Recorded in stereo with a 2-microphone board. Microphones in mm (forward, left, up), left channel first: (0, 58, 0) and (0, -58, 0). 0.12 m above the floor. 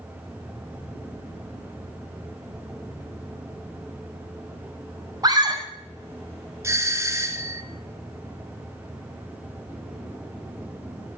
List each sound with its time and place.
5.2 s a scream: 35° right (ahead or behind), 5.5 m
6.6 s a doorbell: 25° right (ahead or behind), 2 m